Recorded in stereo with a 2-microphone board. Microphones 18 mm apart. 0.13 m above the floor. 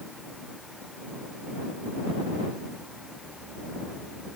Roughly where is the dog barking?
No dog barking in this recording.